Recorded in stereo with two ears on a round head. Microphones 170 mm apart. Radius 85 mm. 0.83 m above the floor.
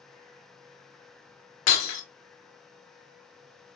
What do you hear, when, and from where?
1.7 s breaking glass: 75° left (ahead or behind), 1.2 m